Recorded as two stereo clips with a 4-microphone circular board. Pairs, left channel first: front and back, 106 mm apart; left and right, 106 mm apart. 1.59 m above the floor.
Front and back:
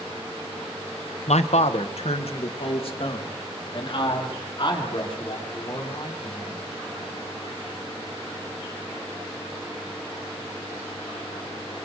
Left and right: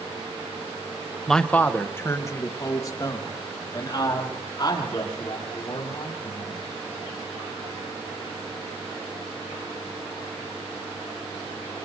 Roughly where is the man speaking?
Ahead.